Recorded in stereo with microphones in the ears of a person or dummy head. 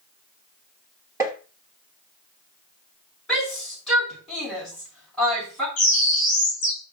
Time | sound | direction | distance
1.2 | tapping | 15° right (ahead or behind) | 1.2 m
3.3 | a shout | centre (ahead or behind) | 5.5 m
5.8 | a bird | 40° left (ahead or behind) | 3.5 m